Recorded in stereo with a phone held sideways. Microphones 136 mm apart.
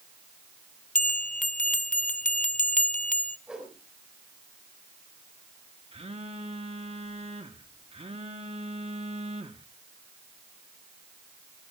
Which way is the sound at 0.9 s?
70° left (ahead or behind).